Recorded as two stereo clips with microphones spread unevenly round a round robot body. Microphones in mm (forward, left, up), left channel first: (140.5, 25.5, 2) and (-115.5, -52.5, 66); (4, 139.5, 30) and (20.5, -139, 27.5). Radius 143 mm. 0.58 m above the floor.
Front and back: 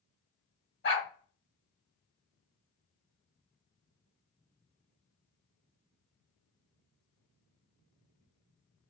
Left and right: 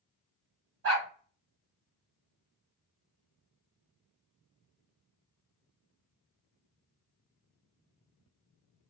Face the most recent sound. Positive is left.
turn(degrees=-35)